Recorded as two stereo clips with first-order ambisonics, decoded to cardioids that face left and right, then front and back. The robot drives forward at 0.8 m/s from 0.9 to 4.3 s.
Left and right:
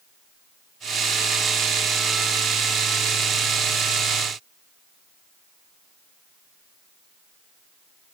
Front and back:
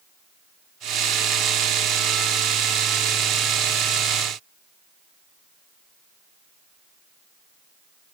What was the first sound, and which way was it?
Only background noise.